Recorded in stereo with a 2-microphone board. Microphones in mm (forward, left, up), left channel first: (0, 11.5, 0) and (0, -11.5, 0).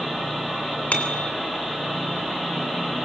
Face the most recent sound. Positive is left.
turn(degrees=90)